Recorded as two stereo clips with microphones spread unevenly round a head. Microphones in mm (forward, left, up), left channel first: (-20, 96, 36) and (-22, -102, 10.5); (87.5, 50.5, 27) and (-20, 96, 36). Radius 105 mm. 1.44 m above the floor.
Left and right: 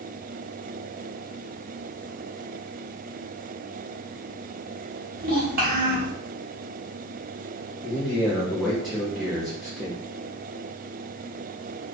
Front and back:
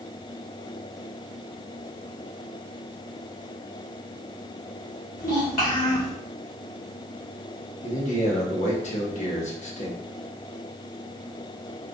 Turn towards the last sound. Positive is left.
turn(degrees=0)